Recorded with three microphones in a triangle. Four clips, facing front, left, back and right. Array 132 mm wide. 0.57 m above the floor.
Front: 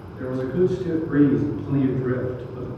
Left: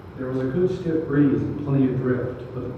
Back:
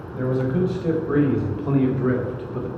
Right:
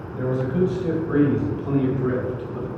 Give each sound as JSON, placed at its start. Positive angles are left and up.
{"t": 0.1, "sound": "a man speaking", "azimuth_deg": 180, "distance_m": 3.5}